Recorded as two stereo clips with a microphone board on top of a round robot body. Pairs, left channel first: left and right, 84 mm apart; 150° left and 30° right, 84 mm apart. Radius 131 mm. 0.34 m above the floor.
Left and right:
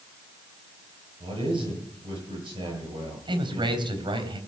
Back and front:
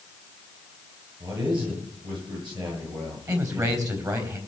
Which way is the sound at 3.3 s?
75° right.